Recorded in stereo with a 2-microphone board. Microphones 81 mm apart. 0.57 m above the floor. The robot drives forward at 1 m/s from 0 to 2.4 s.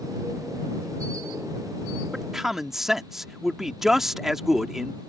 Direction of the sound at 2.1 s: 5° right (ahead or behind).